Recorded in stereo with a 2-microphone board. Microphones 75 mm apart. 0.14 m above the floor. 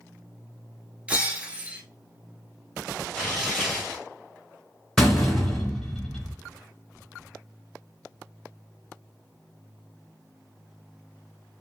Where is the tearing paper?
5° right (ahead or behind), 2.5 m.